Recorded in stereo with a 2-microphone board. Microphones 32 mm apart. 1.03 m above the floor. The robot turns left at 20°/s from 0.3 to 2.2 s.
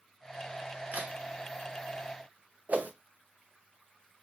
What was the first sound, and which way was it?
A crack, 60° right (ahead or behind).